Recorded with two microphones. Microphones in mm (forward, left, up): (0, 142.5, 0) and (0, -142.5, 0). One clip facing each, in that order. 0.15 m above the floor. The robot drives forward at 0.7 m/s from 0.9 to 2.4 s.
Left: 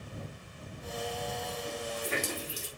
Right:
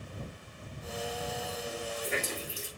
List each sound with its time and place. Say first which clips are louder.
1.6 s a running tap: even; 80° left, 4 m